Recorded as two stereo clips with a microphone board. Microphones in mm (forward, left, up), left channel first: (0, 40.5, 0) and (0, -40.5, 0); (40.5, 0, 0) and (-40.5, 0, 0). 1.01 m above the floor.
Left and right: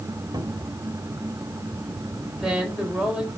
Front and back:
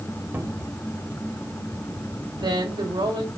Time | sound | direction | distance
0.3 | a cupboard door | 115° right | 2.5 m
2.3 | a woman speaking | 170° right | 4 m